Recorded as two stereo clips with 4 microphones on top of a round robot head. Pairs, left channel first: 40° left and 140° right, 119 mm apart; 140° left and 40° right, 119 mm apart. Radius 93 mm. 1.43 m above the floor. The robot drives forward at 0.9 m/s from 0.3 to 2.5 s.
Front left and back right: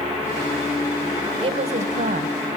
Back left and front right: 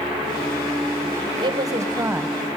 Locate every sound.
1.4 s a woman speaking: 95° right, 1.4 m; by 2.4 s 125° right, 1.7 m